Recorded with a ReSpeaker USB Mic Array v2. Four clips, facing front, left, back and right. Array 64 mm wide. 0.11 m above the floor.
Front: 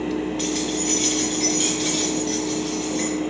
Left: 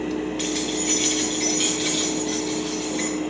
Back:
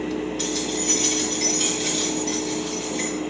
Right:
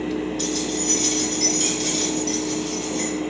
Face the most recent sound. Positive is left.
turn(degrees=80)